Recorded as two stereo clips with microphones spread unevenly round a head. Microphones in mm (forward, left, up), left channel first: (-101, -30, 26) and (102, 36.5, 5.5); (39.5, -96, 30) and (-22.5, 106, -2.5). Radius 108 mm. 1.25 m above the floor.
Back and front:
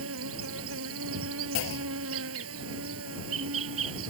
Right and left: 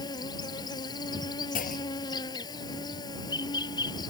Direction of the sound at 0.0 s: 10° right.